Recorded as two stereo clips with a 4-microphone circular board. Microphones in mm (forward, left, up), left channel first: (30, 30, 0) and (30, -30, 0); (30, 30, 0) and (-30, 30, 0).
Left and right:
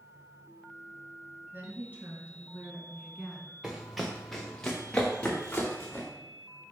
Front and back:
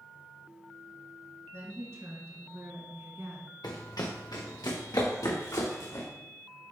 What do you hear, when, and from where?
1.5 s a woman speaking: 145° right, 2.5 m; by 3.5 s straight behind, 1.4 m
3.6 s running footsteps: 10° right, 1.5 m; by 6.0 s 30° left, 2 m